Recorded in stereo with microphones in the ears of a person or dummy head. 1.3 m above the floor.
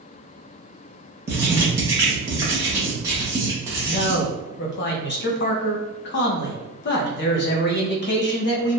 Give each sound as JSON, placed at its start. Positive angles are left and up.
{"t": 1.3, "sound": "writing", "side_deg": -15, "distance_m": 0.8}
{"t": 3.9, "sound": "a man speaking", "side_deg": 50, "distance_m": 0.7}